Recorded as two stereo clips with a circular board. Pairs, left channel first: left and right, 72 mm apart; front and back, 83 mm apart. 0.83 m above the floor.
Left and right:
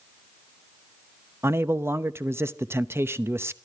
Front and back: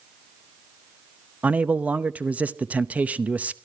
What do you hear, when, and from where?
1.4 s a man speaking: 115° right, 0.7 m